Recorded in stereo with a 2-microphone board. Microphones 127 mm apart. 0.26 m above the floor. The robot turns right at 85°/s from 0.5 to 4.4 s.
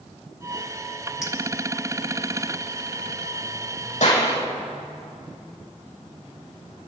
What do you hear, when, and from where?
1.2 s a clink: centre (ahead or behind), 3 m; by 1.3 s 10° right (ahead or behind), 3 m
4.0 s a clap: 65° left (ahead or behind), 7.5 m; by 4.3 s 85° left, 7.5 m